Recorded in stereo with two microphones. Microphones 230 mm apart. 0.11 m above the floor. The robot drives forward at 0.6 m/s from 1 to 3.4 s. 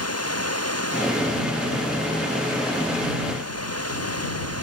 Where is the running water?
85° left.